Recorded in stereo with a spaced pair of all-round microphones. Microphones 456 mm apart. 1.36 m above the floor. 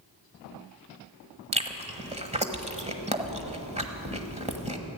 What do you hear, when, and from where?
1.5 s chewing: 15° right (ahead or behind), 1.2 m